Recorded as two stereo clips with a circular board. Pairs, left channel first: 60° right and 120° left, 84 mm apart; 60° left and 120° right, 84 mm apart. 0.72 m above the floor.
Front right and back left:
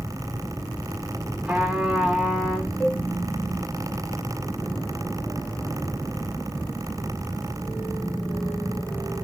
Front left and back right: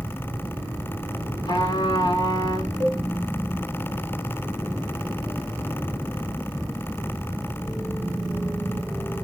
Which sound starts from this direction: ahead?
A cowbell, at 2.8 s.